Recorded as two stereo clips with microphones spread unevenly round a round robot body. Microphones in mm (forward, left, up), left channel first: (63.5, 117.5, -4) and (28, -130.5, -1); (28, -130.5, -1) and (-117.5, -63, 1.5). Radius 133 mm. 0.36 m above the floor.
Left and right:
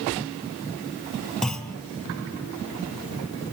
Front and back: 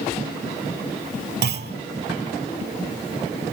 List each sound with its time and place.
1.4 s a clunk: 170° left, 0.9 m